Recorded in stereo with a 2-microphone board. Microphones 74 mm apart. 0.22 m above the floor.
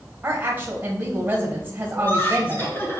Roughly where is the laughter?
Left.